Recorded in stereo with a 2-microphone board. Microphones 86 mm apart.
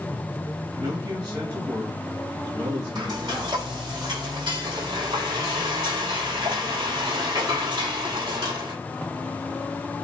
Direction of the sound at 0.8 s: 40° right (ahead or behind).